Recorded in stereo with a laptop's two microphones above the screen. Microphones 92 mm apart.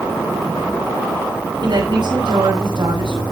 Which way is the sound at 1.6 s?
55° right (ahead or behind).